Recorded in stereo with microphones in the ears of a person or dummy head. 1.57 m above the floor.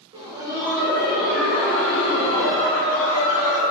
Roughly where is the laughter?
Right.